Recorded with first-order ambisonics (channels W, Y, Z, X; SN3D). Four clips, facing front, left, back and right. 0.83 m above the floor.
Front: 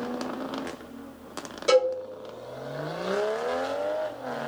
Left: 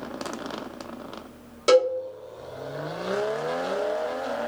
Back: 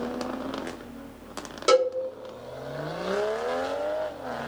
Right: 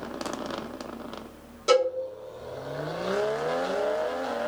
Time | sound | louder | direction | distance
1.7 | a cowbell | left 3 dB, even | 135° left | 1.1 m